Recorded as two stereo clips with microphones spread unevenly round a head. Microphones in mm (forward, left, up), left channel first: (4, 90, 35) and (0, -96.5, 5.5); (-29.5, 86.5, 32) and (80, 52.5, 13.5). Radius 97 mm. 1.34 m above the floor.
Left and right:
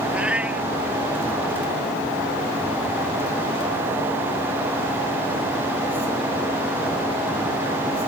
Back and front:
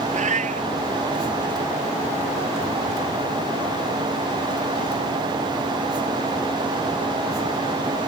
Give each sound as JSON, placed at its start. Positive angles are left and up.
{"t": 0.1, "sound": "a cat meowing", "azimuth_deg": -5}